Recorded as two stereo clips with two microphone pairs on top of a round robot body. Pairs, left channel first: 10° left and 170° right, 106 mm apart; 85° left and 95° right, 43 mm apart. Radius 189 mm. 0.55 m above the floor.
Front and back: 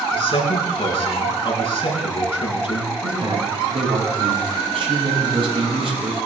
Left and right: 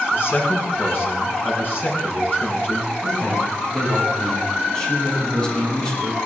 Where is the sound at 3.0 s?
160° left, 6 m.